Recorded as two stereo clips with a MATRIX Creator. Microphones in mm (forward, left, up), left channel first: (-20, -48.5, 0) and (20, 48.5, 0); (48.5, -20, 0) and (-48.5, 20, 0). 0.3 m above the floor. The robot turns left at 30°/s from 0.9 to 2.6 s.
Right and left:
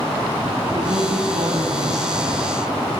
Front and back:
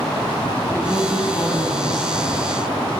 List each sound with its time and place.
0.7 s a woman speaking: 50° left, 2.5 m; by 2.4 s straight ahead, 2.5 m